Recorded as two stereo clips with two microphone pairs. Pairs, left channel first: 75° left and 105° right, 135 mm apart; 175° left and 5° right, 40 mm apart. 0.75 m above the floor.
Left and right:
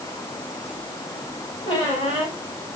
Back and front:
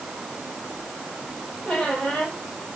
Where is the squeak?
130° left, 5 m.